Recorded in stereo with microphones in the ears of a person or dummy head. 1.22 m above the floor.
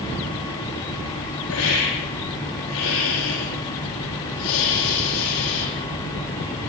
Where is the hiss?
70° left (ahead or behind), 8.5 m.